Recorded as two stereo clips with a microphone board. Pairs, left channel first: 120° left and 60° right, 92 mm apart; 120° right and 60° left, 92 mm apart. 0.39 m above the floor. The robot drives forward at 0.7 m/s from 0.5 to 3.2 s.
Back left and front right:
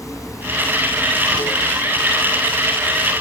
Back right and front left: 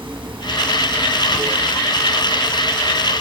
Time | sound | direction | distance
0.0 | running water | 70° left | 2.5 m